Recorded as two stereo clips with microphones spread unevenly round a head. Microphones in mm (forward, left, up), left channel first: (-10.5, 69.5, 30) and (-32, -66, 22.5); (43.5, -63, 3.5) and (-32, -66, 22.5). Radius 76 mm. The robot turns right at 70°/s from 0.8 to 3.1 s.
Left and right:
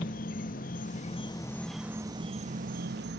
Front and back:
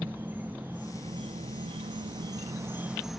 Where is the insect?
105° left, 1.2 m; by 3.2 s 95° right, 1.2 m.